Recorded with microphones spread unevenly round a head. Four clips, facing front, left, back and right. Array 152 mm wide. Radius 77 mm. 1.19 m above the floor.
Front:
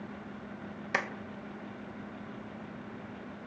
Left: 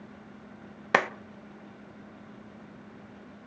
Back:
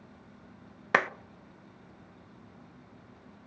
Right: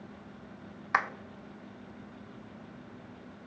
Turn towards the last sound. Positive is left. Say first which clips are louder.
# left 4 dB, back 7 dB
turn(degrees=115)